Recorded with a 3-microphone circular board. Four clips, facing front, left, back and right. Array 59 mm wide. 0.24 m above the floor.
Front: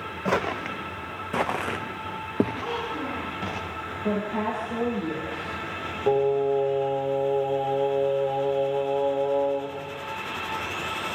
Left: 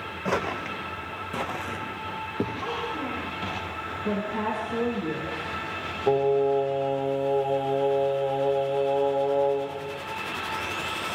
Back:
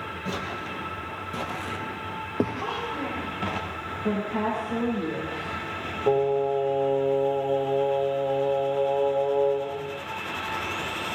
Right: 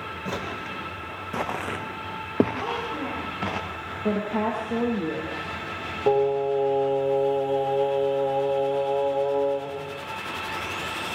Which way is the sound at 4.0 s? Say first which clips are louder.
Right 3 dB, even; 85° right.